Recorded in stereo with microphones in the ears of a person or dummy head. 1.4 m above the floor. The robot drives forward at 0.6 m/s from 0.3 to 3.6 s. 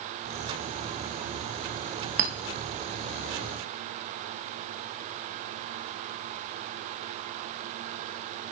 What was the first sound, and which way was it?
A clink, 65° right (ahead or behind).